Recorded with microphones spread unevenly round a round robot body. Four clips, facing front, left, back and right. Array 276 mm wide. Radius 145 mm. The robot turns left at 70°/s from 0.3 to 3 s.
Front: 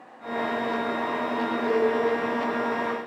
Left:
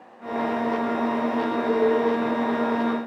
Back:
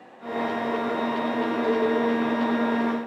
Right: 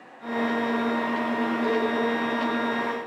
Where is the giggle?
No giggle in this recording.